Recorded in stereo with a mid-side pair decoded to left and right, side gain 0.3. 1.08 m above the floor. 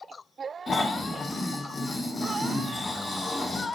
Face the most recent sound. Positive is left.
turn(degrees=50)